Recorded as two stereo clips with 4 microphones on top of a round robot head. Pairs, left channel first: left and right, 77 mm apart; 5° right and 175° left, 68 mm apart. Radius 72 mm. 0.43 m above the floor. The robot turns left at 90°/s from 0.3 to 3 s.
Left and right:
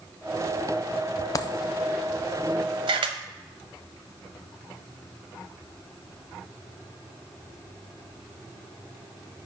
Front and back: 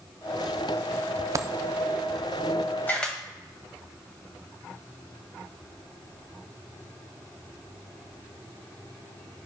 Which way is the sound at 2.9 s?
70° right.